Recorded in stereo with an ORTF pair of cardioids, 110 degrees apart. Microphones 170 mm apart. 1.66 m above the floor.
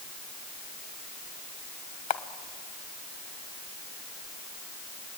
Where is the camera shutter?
45° left, 1.2 m.